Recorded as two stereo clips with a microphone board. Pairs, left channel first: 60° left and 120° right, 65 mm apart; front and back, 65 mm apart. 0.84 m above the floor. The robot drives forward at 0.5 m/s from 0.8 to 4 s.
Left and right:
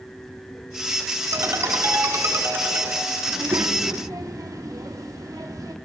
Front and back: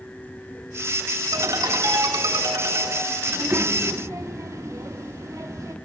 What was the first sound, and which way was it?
A ringtone, 155° right.